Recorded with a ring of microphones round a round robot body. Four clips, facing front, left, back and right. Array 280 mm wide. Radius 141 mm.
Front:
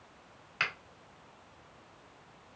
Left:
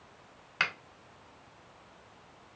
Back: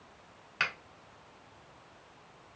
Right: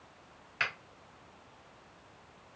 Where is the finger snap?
85° left, 1.5 m.